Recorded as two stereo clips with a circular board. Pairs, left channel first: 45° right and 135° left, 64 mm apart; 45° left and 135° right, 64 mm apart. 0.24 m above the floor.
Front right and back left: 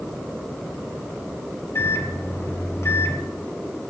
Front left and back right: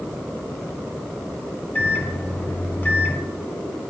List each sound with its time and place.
1.8 s a microwave: 15° right, 1.4 m